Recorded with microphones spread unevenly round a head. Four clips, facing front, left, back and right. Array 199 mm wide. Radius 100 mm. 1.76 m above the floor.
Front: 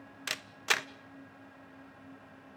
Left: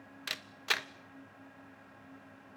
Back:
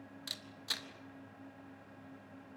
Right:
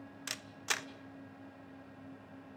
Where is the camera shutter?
20° left, 1.0 m.